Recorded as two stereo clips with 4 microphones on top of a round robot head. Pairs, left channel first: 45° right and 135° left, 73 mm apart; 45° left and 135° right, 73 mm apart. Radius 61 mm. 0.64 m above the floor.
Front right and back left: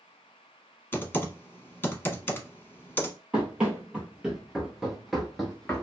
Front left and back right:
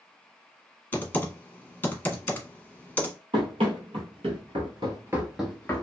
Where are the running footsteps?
145° right, 1.3 m; by 5.8 s 20° left, 0.6 m.